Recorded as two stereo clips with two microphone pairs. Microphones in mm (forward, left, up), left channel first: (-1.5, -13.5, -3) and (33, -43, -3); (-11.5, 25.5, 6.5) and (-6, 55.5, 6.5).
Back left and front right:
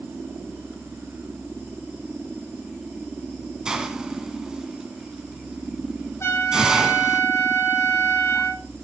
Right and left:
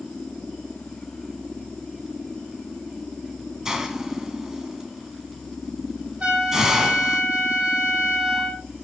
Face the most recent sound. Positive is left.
turn(degrees=125)